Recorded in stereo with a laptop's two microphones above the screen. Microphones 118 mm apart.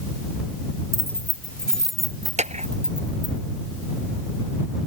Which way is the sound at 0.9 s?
20° left (ahead or behind).